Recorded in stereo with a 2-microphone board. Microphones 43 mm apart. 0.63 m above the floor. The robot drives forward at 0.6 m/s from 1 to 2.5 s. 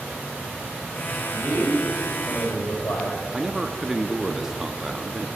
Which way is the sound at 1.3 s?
65° left (ahead or behind).